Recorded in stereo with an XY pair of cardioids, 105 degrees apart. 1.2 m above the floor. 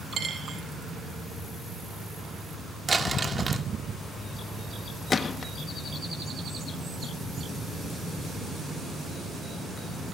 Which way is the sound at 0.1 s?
45° right.